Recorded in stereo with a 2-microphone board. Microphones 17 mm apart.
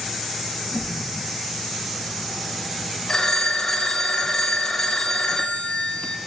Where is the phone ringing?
35° left (ahead or behind), 0.7 m.